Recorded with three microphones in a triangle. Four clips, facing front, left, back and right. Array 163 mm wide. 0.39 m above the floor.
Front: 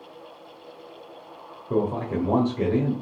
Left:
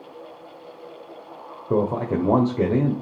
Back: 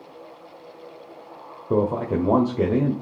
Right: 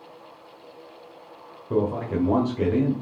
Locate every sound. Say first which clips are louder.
1.7 s a man speaking: left 2 dB, back 3 dB; 130° left, 1.6 m